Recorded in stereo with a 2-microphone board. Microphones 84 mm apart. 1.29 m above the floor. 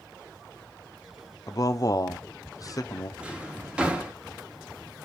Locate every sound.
1.5 s a man speaking: 45° left (ahead or behind), 0.7 m
3.2 s a drawer: 15° right (ahead or behind), 0.8 m